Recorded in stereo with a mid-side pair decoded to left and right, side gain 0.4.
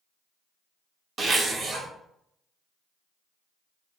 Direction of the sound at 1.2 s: 55° right.